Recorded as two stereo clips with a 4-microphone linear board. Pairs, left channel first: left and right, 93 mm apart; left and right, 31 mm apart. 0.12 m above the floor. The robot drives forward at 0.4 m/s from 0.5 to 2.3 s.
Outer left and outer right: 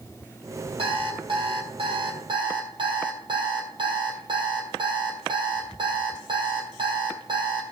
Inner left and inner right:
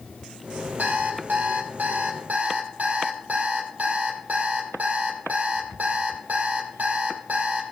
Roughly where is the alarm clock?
Right.